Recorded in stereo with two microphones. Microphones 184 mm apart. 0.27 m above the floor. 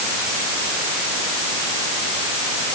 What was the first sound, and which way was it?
Only background noise.